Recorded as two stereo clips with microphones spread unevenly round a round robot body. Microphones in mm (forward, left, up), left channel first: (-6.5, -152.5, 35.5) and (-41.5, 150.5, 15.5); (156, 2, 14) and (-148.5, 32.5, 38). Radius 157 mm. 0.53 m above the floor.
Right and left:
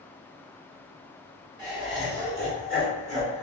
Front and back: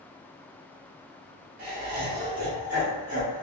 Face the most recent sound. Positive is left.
turn(degrees=-100)